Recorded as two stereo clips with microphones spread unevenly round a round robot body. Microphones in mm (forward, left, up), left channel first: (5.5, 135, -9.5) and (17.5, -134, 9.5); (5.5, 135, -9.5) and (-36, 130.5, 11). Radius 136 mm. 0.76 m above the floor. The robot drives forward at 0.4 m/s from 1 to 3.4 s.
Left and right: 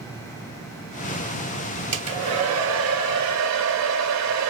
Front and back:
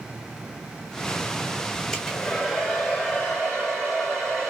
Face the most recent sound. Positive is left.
turn(degrees=-85)